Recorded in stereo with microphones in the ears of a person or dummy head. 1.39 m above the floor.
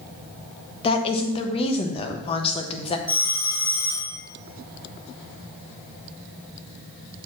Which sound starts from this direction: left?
A woman speaking, at 0.8 s.